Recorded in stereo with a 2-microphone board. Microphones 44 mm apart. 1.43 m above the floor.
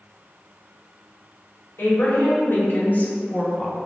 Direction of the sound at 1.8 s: 70° left (ahead or behind).